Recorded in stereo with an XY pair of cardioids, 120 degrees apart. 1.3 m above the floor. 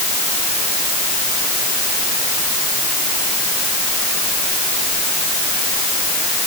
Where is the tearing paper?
I don't hear tearing paper.